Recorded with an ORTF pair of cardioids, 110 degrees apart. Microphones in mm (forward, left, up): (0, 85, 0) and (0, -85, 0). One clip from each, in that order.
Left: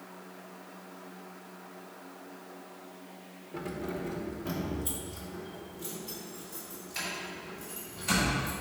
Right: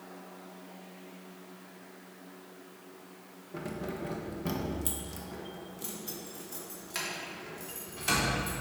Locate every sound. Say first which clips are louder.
3.5 s keys jangling: left 1 dB; 5° right, 1.0 m; by 8.5 s 75° right, 3.5 m